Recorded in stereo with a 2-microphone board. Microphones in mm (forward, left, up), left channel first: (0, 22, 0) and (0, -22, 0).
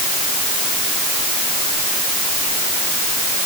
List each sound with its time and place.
Only background noise.